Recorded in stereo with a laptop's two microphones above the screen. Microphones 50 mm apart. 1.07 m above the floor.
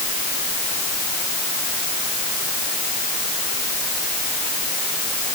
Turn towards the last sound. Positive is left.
No sound to turn to.